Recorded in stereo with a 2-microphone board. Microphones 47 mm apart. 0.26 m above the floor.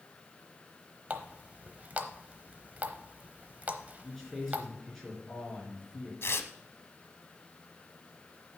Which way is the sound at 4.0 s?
5° left (ahead or behind).